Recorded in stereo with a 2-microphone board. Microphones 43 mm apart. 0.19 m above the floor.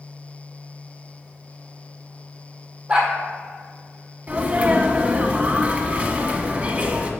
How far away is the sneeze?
About 1.1 m.